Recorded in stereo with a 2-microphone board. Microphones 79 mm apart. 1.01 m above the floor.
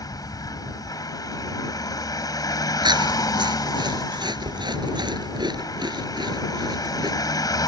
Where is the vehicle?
55° left (ahead or behind).